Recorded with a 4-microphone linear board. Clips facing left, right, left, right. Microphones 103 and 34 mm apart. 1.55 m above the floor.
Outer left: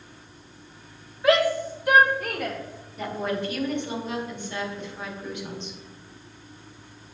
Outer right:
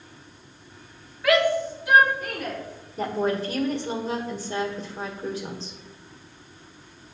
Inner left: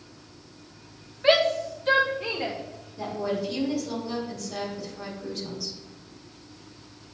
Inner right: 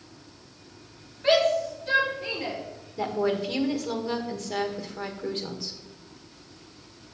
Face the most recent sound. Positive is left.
turn(degrees=-35)  # may be behind; listen again after turning